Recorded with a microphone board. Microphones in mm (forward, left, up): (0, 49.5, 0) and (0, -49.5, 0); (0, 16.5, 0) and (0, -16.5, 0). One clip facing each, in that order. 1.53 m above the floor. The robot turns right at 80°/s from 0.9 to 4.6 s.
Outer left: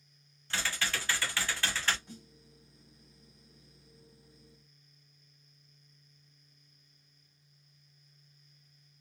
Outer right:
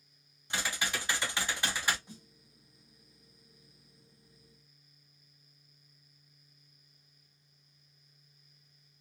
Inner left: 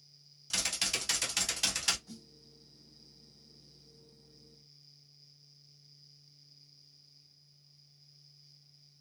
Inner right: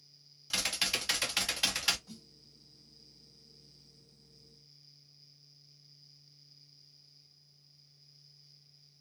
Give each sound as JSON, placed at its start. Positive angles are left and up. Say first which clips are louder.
{"t": 0.5, "sound": "typing on a keyboard", "louder": "even, inner right 2 dB", "side_deg": -20, "distance_m": 0.5}
{"t": 2.1, "sound": "a snare drum", "louder": "outer left 2 dB, inner left 1 dB", "side_deg": -15, "distance_m": 1.8}